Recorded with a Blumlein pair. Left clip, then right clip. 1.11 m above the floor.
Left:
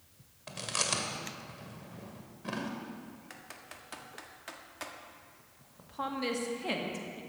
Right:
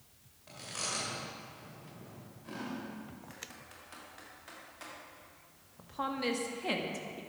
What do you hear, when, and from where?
0.5 s chewing: 30° left, 2.5 m
3.3 s typing on a keyboard: 20° left, 1.6 m
5.8 s a woman speaking: 5° right, 2.0 m